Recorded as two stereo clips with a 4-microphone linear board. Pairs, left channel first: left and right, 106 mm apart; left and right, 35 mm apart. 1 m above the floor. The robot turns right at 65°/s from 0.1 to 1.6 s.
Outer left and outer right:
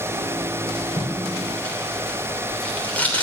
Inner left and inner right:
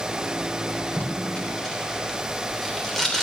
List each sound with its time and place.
1.0 s tape being pulled: 55° left (ahead or behind), 3 m; by 3.2 s 15° left (ahead or behind), 3 m